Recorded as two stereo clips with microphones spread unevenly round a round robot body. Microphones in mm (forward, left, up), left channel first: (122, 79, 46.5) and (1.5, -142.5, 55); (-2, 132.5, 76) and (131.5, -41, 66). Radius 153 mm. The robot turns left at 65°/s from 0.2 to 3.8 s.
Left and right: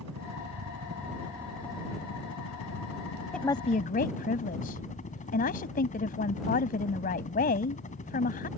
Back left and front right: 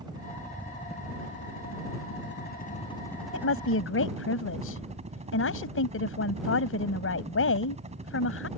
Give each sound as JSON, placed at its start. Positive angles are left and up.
{"t": 0.0, "sound": "a helicopter", "azimuth_deg": -120}
{"t": 3.3, "sound": "a woman speaking", "azimuth_deg": 150}